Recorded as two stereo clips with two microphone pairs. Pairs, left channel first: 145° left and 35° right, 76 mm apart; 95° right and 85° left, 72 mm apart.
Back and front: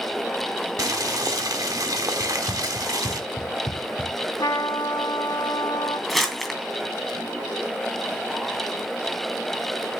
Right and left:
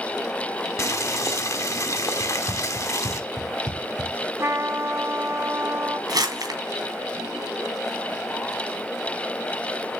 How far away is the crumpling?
About 2.5 m.